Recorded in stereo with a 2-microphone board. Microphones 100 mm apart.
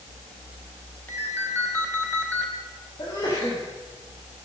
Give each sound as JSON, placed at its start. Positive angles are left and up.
{"t": 1.1, "sound": "a ringtone", "side_deg": 20, "distance_m": 3.0}
{"t": 3.0, "sound": "a sneeze", "side_deg": 50, "distance_m": 7.0}